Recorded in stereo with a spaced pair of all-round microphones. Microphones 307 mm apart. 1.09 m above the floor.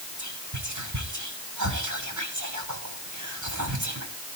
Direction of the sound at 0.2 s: 70° right (ahead or behind).